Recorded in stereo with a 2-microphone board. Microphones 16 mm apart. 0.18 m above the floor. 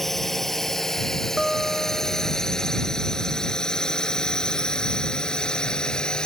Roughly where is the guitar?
Right.